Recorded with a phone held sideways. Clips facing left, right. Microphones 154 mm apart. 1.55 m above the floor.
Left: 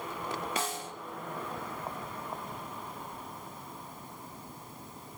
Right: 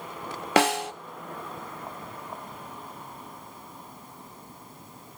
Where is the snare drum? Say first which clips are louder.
Right 13 dB; 75° right (ahead or behind), 0.6 m.